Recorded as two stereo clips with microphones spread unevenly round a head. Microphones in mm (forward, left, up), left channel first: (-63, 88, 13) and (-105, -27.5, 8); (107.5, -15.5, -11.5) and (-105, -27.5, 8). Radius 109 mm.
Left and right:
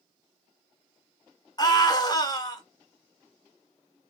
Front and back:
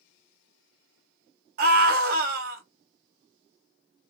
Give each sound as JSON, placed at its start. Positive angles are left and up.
{"t": 1.6, "sound": "a scream", "azimuth_deg": 130, "distance_m": 1.1}